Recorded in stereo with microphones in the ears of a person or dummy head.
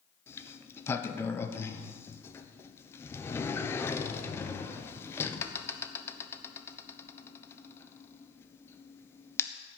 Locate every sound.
0.3 s a sliding door: 20° left (ahead or behind), 1.0 m